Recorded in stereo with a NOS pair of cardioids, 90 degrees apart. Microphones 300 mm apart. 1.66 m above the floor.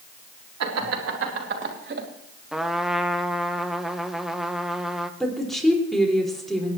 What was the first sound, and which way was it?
Laughter, 60° right.